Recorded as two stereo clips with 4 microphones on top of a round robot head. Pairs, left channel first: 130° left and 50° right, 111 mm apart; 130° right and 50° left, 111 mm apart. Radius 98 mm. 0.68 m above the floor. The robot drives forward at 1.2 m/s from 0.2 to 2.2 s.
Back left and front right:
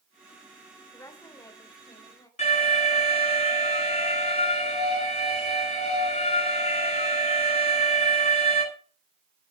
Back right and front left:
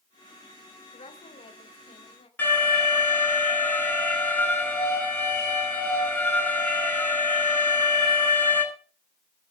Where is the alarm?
150° left, 10 m.